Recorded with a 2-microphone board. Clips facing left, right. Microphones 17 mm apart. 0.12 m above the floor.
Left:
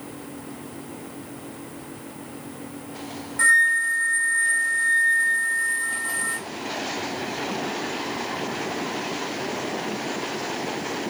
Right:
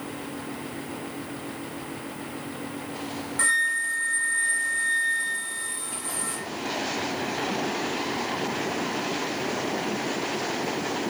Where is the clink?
I don't hear a clink.